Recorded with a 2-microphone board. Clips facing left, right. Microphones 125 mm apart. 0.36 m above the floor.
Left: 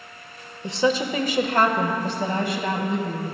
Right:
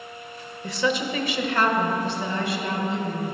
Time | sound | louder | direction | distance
0.6 | a woman speaking | left 3 dB | 25° left (ahead or behind) | 1.0 m